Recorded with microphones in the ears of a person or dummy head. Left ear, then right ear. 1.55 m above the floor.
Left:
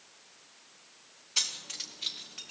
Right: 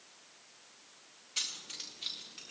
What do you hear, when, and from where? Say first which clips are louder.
1.4 s keys jangling: left 6 dB; 30° left (ahead or behind), 0.6 m; by 2.5 s 20° left (ahead or behind), 1.6 m